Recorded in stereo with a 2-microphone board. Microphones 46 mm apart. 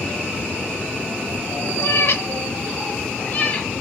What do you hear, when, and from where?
1.8 s a cat meowing: 65° left (ahead or behind), 0.8 m; by 3.7 s 30° left (ahead or behind), 1.2 m